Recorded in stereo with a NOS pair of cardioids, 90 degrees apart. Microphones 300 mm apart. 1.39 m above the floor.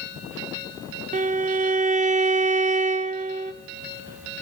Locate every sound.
1.1 s a violin: 25° right, 0.5 m